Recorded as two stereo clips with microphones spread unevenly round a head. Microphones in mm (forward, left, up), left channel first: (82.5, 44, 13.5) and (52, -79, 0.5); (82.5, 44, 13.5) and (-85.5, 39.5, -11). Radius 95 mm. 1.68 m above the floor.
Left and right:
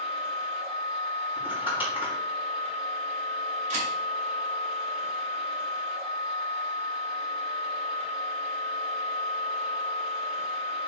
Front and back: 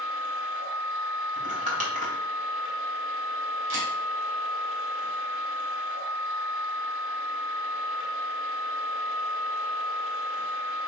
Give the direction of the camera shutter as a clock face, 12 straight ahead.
5 o'clock.